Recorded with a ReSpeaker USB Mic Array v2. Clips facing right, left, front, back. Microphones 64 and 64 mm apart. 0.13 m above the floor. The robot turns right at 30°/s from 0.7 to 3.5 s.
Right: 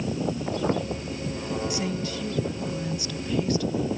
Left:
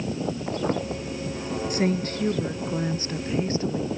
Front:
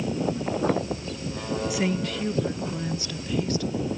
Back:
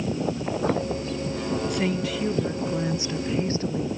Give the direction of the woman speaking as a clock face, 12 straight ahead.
9 o'clock.